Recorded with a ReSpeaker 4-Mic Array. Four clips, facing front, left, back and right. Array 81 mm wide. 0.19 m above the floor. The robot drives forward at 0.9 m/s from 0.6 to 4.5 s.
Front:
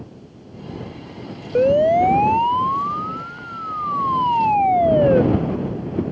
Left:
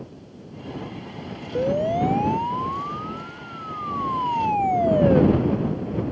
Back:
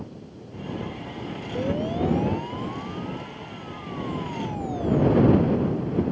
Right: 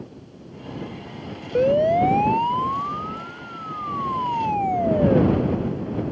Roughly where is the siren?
Ahead right.